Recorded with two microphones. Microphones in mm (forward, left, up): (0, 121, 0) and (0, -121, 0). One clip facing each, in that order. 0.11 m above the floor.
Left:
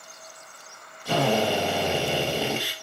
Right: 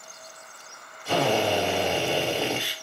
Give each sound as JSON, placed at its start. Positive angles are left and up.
{"t": 1.1, "sound": "a drill", "side_deg": 40, "distance_m": 1.9}